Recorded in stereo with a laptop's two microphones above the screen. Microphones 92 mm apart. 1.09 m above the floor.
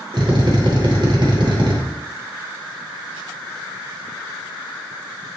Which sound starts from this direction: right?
A drill, at 0.1 s.